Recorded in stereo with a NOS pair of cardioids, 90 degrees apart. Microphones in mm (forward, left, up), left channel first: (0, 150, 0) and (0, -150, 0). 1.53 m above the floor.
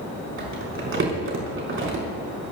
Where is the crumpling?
45° right, 5.5 m.